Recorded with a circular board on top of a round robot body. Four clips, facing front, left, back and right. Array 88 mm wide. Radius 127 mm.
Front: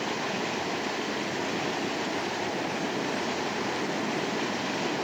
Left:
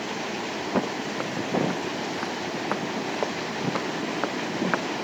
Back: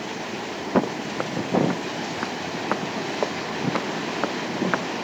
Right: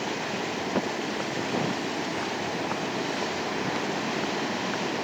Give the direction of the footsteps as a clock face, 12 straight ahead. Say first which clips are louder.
Left 3 dB, back 7 dB; 6 o'clock.